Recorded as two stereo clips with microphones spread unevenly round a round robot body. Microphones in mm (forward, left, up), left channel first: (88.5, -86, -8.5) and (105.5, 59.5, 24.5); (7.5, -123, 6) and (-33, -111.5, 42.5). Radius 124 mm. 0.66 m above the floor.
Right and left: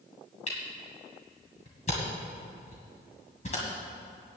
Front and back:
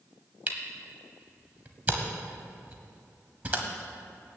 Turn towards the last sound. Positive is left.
turn(degrees=-165)